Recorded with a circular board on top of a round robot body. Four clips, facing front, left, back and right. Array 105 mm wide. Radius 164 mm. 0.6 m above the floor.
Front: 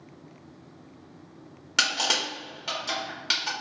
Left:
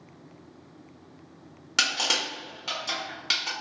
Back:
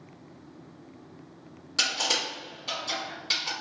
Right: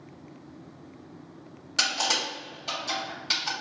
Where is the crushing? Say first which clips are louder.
Even, front 3 dB; 40° left, 1.5 m.